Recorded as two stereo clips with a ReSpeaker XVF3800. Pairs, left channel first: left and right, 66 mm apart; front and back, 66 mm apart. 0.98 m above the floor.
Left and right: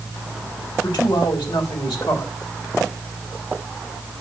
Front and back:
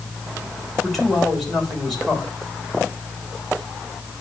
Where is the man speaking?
90° left, 3 m.